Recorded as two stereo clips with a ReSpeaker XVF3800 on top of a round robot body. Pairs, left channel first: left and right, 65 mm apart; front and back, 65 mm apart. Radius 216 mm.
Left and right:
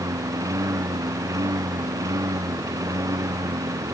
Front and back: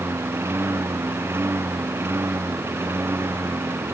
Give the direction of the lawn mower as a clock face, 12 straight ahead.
4 o'clock.